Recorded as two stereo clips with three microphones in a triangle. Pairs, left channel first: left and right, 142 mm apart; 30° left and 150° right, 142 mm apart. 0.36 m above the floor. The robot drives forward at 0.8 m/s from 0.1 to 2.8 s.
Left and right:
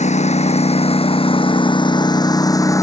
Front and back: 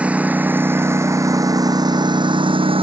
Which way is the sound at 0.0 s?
130° left.